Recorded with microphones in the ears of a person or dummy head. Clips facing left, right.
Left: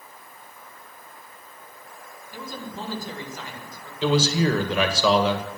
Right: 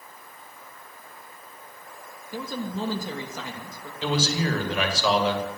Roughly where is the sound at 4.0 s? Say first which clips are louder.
Left 5 dB; left.